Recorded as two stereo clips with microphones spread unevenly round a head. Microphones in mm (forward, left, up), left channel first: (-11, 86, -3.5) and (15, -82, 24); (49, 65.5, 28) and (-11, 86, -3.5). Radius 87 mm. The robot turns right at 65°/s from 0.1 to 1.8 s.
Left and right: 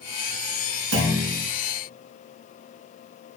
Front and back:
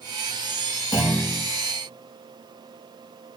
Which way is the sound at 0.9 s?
75° right.